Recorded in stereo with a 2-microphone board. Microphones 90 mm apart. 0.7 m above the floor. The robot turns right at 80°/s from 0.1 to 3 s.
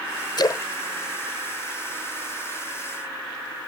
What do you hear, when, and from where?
0.4 s a splash: 55° left (ahead or behind); by 2.3 s 75° right (ahead or behind)